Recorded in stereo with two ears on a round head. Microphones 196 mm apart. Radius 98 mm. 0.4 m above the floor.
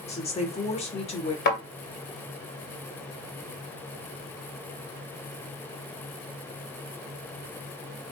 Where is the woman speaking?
30° left (ahead or behind), 1.1 m.